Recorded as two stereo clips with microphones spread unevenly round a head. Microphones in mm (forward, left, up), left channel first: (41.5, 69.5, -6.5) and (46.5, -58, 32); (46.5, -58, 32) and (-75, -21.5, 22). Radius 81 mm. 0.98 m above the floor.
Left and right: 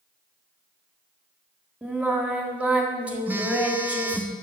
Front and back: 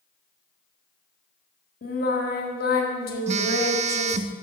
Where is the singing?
5° right, 1.6 m.